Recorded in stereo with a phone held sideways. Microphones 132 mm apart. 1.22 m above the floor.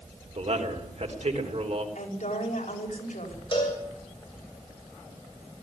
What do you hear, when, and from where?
0.3 s a man speaking: 55° right (ahead or behind), 4 m
1.9 s a woman speaking: 65° left (ahead or behind), 5.5 m
3.5 s a cowbell: 40° left (ahead or behind), 7 m